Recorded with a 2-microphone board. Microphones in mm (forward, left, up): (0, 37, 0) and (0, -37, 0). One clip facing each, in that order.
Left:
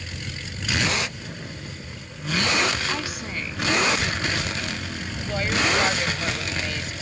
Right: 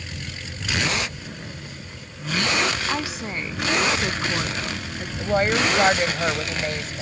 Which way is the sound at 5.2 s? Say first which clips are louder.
Right 5 dB; 40° right (ahead or behind).